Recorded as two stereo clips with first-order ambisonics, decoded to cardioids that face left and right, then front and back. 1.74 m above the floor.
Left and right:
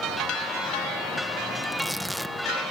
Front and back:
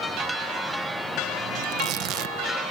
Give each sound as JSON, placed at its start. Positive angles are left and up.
{"t": 1.6, "sound": "tearing paper", "azimuth_deg": 180}